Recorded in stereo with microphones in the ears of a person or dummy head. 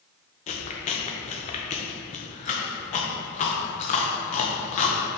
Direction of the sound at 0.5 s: 30° left (ahead or behind).